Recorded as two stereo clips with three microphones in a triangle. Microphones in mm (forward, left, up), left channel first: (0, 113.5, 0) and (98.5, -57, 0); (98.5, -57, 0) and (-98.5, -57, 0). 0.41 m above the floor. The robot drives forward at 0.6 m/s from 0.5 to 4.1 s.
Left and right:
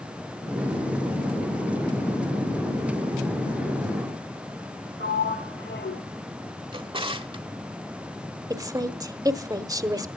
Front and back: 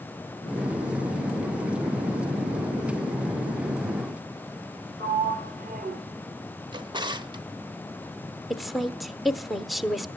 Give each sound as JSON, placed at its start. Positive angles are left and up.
{"t": 5.0, "sound": "a sliding door", "azimuth_deg": 140, "distance_m": 1.6}
{"t": 6.7, "sound": "a drawer", "azimuth_deg": -115, "distance_m": 1.0}
{"t": 8.5, "sound": "a woman speaking", "azimuth_deg": -90, "distance_m": 1.0}